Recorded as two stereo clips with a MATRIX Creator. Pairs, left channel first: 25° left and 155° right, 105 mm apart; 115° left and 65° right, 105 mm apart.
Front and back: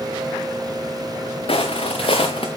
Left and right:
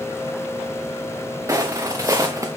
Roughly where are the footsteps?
Ahead.